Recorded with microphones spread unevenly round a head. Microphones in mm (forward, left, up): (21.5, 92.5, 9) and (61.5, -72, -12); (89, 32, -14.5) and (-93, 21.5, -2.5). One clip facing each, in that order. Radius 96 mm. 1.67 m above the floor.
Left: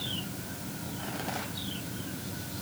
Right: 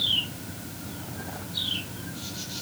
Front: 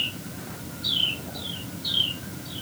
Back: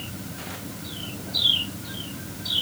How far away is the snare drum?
I don't hear a snare drum.